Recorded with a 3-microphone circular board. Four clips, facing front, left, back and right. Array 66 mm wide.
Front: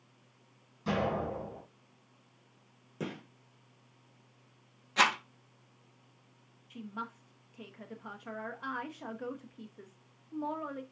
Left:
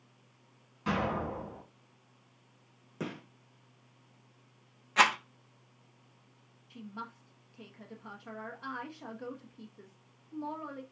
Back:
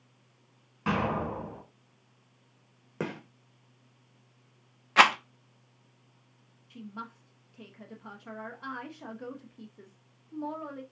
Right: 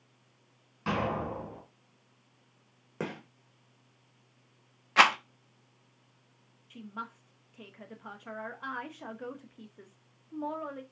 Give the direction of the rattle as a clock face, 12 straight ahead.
5 o'clock.